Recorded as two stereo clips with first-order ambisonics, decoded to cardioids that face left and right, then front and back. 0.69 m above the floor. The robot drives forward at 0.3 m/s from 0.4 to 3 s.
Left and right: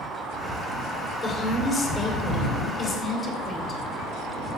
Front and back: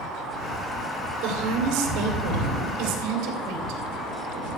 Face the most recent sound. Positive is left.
turn(degrees=170)